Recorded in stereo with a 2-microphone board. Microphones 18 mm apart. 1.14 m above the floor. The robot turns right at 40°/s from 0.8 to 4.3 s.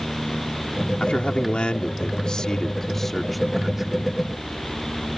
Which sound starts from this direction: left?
A man speaking, at 1.0 s.